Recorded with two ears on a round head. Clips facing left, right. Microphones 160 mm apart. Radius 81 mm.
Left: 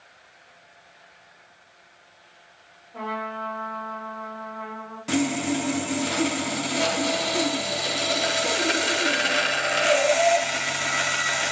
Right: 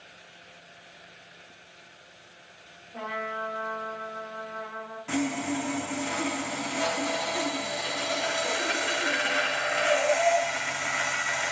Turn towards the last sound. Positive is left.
turn(degrees=45)  # may be behind; listen again after turning